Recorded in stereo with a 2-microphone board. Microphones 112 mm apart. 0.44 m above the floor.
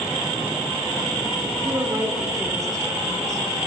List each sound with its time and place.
1.6 s a woman speaking: 30° right (ahead or behind), 1.1 m